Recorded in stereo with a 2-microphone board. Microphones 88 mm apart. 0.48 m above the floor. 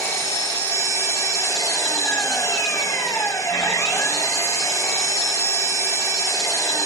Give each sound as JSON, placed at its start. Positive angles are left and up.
{"t": 0.0, "sound": "an engine running", "side_deg": 35, "distance_m": 1.6}